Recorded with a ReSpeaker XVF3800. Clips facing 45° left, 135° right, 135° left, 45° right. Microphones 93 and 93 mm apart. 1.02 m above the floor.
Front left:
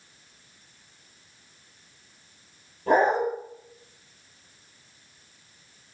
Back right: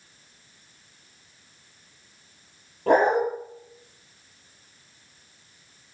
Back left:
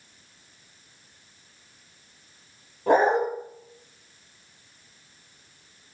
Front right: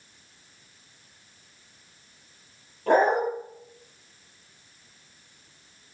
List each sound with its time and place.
2.9 s a dog barking: 150° right, 8.5 m